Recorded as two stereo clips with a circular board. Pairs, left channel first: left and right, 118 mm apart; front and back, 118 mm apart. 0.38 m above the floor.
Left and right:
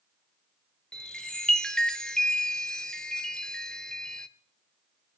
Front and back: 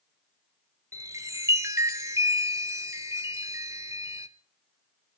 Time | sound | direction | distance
0.9 | a chime | 170° left | 0.7 m